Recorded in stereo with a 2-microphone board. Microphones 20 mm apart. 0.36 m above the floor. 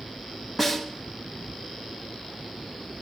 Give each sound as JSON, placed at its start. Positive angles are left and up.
{"t": 0.6, "sound": "a snare drum", "side_deg": -5, "distance_m": 1.1}